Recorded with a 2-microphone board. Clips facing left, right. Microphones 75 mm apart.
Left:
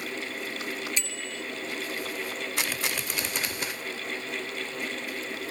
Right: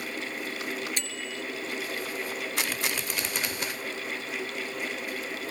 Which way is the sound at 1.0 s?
55° right (ahead or behind).